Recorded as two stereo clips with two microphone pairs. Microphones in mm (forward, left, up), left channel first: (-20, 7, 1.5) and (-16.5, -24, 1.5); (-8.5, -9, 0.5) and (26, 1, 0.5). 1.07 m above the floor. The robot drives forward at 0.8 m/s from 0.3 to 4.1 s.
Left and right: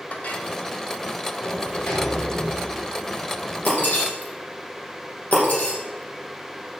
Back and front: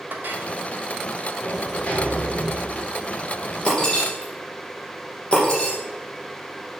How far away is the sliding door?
About 3.5 m.